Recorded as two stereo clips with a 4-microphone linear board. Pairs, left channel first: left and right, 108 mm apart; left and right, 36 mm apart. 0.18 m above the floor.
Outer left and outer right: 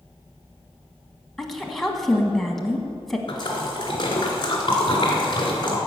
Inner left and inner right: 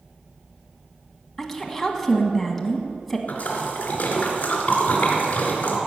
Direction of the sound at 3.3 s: 45° left (ahead or behind).